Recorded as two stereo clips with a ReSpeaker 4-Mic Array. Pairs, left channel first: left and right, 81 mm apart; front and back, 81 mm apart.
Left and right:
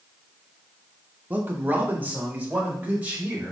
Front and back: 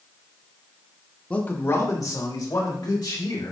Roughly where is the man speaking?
Ahead right.